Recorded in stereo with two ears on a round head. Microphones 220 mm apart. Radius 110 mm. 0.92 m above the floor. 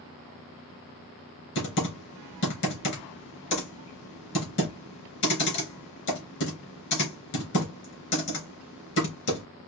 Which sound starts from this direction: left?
Typing on a keyboard, at 1.6 s.